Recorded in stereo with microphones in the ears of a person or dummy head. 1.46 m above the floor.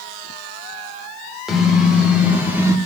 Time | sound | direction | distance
1.5 | a car horn | centre (ahead or behind) | 3 m